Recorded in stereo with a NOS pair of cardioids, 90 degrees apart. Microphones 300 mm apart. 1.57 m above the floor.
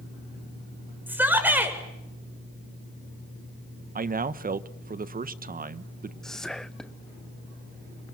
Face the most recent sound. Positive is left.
turn(degrees=0)